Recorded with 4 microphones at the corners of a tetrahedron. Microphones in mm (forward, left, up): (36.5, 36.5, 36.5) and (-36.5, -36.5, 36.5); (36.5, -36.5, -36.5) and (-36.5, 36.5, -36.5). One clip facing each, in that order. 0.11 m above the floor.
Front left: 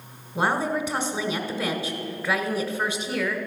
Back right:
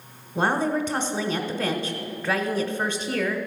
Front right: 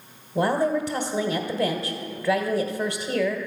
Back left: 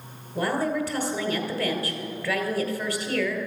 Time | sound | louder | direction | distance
0.3 | a woman speaking | back right 1 dB, front right 3 dB | 20° right | 1.3 m